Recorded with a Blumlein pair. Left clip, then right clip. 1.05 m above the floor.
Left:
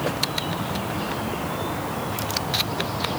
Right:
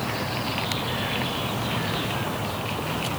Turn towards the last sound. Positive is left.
No sound to turn to.